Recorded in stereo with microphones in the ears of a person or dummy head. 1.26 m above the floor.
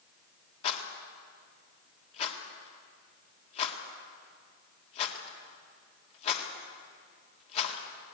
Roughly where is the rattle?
Left.